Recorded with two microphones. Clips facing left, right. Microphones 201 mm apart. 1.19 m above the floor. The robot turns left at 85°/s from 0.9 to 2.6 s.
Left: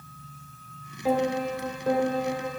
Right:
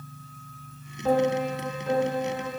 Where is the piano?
170° left, 1.1 m; by 2.5 s 45° left, 1.1 m.